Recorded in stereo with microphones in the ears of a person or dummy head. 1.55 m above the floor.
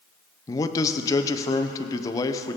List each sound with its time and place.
0.5 s a man speaking: 25° left (ahead or behind), 0.8 m